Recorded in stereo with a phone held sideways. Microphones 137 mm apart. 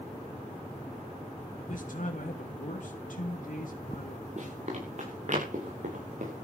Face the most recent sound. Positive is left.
turn(degrees=-60)  # may be behind; listen again after turning